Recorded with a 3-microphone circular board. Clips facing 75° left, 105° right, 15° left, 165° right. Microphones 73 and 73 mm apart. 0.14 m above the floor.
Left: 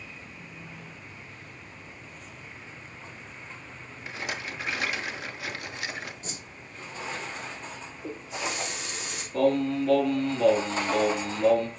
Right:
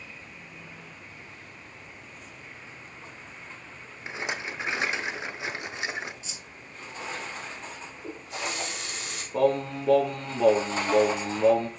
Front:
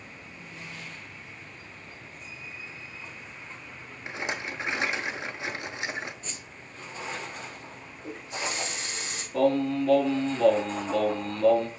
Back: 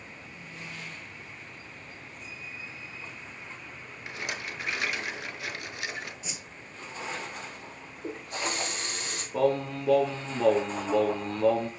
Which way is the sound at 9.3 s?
105° right.